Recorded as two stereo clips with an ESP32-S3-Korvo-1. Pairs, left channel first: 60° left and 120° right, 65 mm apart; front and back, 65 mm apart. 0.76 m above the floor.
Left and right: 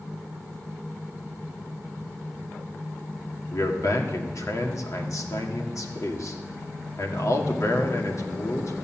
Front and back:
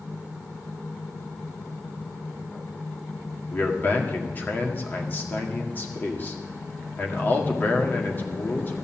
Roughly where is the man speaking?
Ahead left.